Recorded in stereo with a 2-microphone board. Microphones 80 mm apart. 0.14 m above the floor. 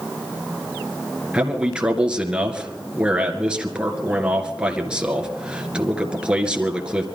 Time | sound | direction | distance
1.3 | a man speaking | 10° right (ahead or behind) | 2 m